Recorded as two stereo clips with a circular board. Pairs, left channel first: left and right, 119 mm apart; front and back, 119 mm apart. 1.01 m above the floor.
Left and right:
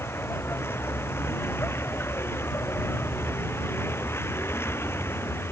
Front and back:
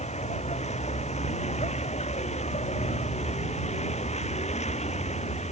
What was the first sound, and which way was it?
A vehicle, 20° left.